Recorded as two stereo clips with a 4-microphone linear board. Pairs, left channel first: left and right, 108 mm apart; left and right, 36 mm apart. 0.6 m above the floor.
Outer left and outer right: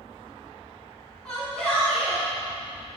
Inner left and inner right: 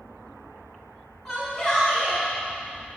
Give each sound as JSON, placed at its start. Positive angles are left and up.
{"t": 1.2, "sound": "a shout", "side_deg": 5, "distance_m": 5.5}